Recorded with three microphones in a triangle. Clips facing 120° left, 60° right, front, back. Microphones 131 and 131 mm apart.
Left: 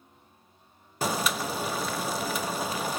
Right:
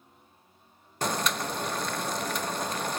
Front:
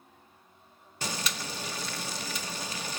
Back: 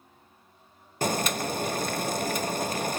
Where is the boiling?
155° right, 0.7 m.